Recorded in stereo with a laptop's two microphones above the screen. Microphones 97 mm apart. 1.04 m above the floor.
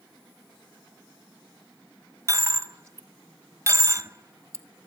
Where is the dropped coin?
30° right (ahead or behind), 0.9 m.